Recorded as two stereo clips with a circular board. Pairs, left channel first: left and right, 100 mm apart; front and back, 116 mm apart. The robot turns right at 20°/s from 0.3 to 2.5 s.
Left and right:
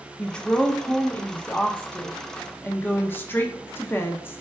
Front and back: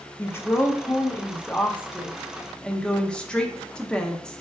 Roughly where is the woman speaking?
Ahead left.